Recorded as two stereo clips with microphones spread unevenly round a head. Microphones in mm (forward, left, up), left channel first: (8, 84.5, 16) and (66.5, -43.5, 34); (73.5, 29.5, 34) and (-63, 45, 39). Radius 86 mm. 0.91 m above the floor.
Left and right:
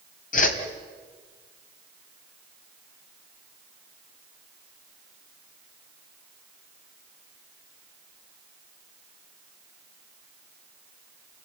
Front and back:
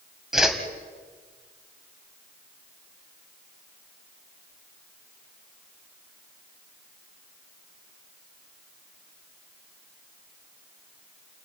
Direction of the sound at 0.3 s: 85° left.